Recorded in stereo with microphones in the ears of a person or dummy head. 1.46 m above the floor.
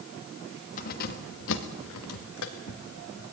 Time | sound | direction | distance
0.8 | keys jangling | 45° left (ahead or behind) | 1.8 m